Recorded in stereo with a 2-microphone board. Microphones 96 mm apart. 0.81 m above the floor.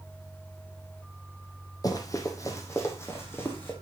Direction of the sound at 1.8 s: 40° left (ahead or behind).